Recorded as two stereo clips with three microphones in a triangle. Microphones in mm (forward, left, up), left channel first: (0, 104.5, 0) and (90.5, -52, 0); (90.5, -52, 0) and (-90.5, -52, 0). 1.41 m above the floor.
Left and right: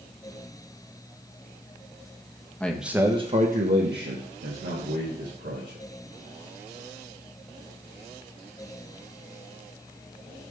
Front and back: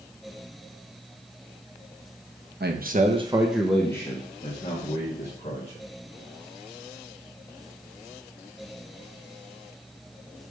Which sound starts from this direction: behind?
A man speaking, at 2.6 s.